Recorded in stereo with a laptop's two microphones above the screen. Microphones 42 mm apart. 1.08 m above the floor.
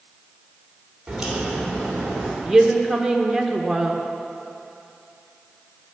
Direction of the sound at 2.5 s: Centre (ahead or behind).